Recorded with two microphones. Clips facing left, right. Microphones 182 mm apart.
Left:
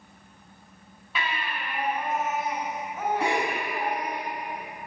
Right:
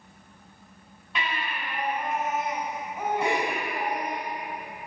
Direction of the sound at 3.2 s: 80° left.